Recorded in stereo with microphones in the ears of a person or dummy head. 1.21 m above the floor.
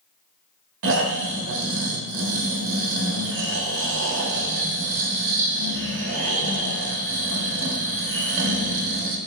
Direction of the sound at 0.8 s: 65° right (ahead or behind).